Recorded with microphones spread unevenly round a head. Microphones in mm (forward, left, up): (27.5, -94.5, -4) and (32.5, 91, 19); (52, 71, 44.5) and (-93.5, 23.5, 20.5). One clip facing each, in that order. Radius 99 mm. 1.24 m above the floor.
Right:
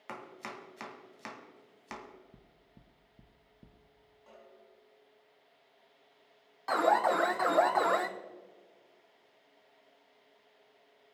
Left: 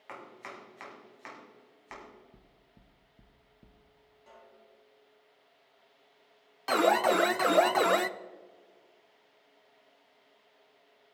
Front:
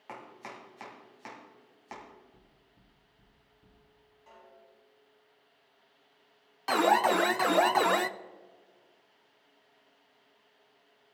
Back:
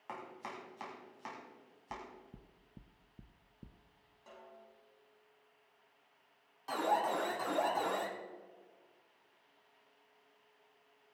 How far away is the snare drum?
About 6 m.